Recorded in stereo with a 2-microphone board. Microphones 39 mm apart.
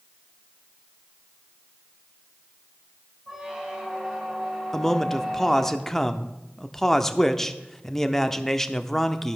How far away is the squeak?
About 2.5 m.